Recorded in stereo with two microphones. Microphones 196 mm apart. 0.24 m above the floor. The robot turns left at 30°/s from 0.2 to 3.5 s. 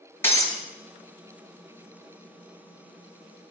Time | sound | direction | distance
0.2 | breaking glass | 10° left (ahead or behind) | 1.3 m